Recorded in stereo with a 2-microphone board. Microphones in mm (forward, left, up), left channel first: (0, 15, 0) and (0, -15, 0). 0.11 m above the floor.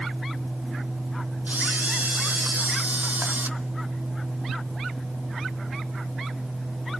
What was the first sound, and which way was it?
A camera shutter, 80° right.